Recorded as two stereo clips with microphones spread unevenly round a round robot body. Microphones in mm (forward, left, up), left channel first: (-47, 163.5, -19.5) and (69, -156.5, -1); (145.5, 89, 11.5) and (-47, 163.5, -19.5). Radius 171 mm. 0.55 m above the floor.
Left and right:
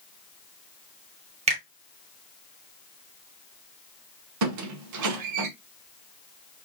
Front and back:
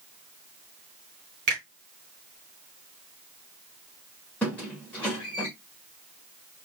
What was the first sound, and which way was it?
A finger snap, 145° right.